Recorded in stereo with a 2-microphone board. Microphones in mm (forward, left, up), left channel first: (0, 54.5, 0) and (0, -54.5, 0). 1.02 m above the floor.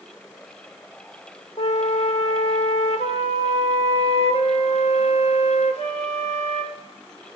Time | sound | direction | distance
1.6 | a flute | 80° left | 1.5 m